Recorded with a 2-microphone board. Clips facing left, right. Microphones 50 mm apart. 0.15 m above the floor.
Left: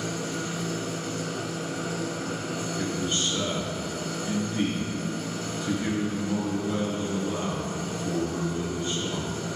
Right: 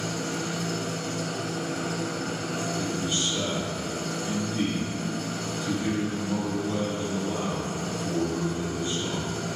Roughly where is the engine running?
Right.